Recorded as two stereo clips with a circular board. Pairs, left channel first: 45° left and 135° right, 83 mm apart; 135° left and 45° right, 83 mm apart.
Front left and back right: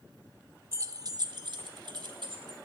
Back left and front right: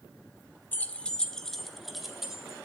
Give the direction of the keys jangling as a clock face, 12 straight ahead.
6 o'clock.